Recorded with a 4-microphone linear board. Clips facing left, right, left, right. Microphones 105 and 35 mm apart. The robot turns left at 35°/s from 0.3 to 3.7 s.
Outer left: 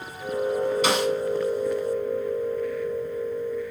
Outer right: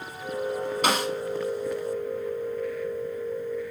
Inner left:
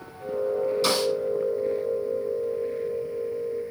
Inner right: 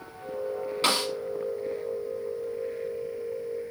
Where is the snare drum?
50° right (ahead or behind), 3 m; by 1.1 s 45° right (ahead or behind), 3 m.